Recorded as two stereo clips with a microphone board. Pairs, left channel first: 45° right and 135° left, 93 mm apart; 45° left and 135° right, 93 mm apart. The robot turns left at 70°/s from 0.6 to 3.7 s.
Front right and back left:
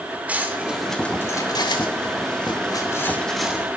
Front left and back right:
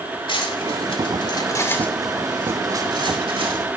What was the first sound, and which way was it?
Cutlery clinking, 60° left.